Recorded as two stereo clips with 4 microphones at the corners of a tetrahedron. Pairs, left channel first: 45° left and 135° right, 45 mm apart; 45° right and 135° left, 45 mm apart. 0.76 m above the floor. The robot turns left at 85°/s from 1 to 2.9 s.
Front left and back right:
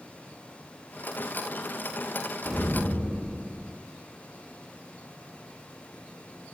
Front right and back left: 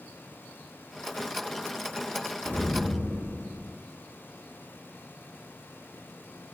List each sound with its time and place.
2.5 s an explosion: 10° right, 1.1 m; by 3.7 s 45° right, 1.1 m